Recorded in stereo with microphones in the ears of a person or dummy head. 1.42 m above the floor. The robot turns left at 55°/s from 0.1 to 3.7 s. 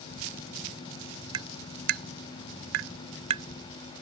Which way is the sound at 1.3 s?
25° right (ahead or behind).